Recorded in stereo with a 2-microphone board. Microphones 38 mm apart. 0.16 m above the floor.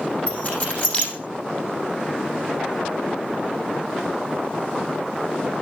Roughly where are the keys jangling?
Left.